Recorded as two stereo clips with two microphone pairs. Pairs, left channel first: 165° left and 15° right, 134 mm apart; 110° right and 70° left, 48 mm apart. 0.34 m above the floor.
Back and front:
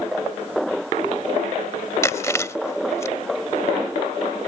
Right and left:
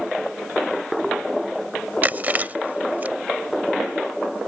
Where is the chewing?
105° left.